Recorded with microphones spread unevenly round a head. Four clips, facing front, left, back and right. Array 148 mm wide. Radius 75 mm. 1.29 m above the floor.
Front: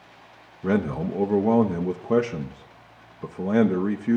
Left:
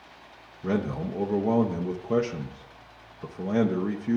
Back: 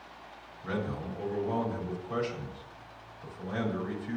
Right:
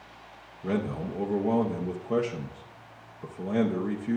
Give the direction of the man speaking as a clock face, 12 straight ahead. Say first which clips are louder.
Left 2 dB, front 11 dB; 12 o'clock.